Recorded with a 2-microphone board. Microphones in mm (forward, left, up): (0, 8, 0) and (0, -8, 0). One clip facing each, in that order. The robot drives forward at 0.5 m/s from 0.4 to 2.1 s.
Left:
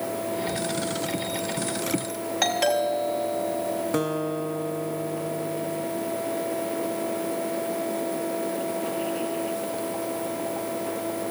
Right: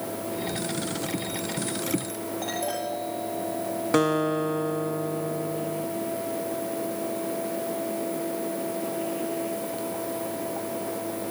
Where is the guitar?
20° right (ahead or behind), 0.7 m.